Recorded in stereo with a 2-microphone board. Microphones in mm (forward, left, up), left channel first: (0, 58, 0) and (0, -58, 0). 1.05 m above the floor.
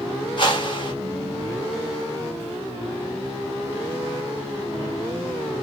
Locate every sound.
0.4 s a whoosh: 45° left (ahead or behind), 1.5 m